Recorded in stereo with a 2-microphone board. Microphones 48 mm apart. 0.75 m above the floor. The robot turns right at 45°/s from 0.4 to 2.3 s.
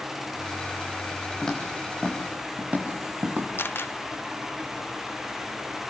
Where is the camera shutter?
50° left (ahead or behind), 0.8 m.